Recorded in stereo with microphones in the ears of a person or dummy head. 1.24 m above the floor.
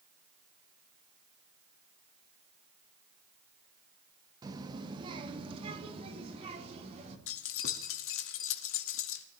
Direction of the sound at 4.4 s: 20° right (ahead or behind).